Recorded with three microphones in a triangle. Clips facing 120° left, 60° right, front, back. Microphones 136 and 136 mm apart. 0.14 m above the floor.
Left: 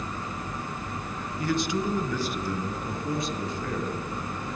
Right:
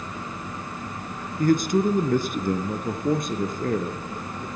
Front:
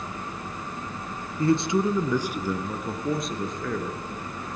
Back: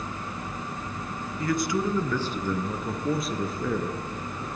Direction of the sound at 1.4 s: 45° right.